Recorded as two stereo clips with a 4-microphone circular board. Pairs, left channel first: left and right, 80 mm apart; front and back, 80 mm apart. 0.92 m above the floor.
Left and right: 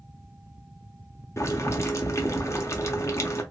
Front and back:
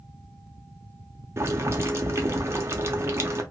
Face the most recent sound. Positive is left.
turn(degrees=135)